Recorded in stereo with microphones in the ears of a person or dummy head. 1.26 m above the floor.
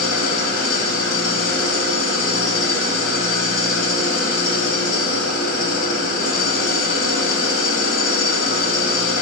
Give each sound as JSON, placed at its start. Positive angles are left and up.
{"t": 0.0, "sound": "an engine running", "side_deg": 65, "distance_m": 2.0}